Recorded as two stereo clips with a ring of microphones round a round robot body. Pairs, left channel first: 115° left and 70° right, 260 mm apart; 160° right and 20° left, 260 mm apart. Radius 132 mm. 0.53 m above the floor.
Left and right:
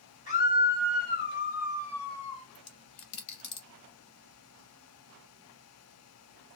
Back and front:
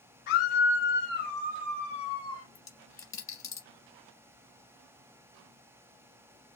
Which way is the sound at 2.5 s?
125° left.